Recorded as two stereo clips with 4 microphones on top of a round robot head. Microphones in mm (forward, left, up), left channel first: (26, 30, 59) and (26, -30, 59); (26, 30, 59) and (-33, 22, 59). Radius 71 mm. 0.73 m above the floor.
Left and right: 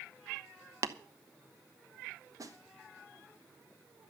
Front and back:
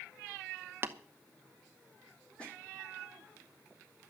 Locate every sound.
0.8 s tapping: 120° right, 0.9 m
2.4 s a snare drum: 65° right, 2 m